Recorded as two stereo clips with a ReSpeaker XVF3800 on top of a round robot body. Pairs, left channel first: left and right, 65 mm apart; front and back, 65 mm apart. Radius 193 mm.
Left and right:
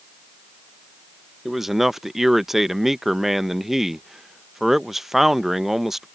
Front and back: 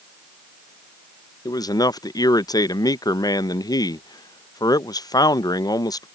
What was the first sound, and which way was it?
A man speaking, 5° right.